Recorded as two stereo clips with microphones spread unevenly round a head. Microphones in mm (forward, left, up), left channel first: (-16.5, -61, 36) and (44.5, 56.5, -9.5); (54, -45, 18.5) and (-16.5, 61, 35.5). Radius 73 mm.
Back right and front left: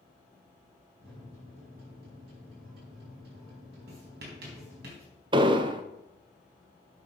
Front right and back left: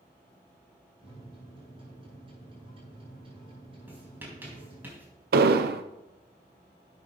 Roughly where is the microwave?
Left.